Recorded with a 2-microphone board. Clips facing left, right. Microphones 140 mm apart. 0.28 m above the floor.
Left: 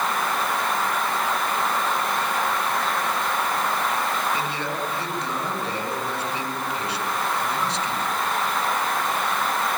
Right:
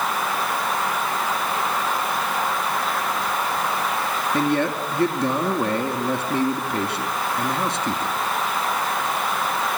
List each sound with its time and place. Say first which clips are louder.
4.3 s a man speaking: right 7 dB; 55° right (ahead or behind), 3 m